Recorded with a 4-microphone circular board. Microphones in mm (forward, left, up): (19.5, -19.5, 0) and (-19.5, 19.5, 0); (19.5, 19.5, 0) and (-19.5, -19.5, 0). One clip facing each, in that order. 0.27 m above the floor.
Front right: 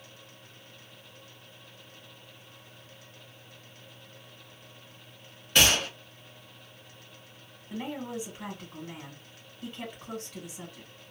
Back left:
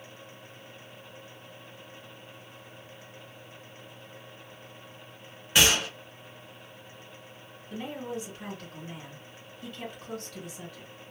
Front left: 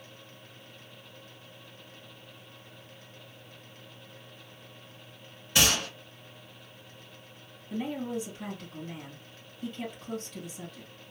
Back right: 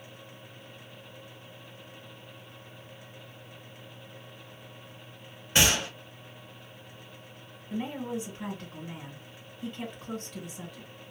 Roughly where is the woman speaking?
Right.